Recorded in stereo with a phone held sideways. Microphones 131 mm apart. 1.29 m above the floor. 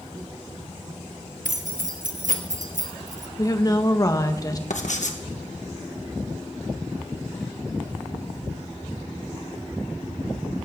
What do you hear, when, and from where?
1.4 s keys jangling: 85° right, 1.3 m
3.4 s a woman speaking: 30° left (ahead or behind), 1.4 m
4.7 s writing: 70° left (ahead or behind), 1.5 m